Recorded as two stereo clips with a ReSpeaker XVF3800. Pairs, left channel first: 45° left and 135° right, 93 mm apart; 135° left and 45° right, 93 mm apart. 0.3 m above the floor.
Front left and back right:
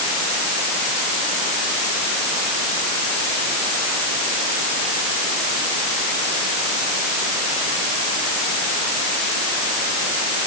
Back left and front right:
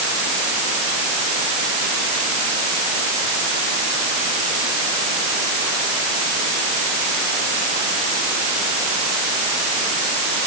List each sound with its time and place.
Only background noise.